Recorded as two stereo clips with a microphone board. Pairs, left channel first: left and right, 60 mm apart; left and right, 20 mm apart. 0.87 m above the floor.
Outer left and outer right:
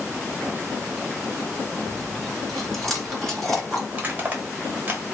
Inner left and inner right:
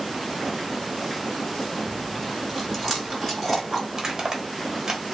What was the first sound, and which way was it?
Chewing, 5° left (ahead or behind).